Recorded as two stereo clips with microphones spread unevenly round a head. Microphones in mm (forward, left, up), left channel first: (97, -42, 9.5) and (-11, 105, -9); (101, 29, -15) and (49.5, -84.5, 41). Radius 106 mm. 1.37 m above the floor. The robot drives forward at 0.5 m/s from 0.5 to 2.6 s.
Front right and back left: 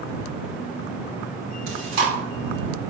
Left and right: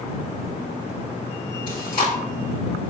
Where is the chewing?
130° left, 4.5 m; by 2.1 s 135° left, 4.5 m.